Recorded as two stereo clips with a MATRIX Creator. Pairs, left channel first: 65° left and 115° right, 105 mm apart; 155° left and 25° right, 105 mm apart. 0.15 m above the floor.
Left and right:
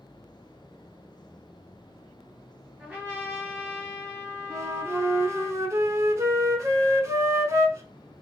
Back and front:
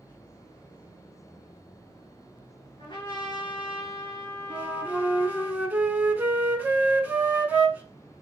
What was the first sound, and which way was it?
A trumpet, 175° left.